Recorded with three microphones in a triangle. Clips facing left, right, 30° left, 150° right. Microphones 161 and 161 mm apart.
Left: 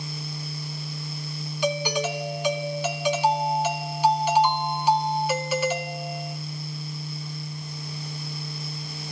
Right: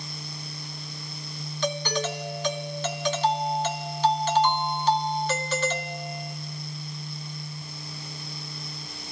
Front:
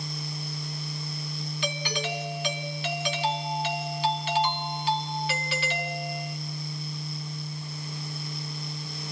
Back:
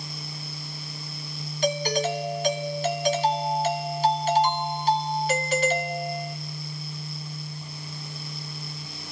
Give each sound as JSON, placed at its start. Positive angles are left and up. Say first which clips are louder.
{"t": 1.6, "sound": "a doorbell", "louder": "left 3 dB, back 9 dB", "azimuth_deg": 170, "distance_m": 1.9}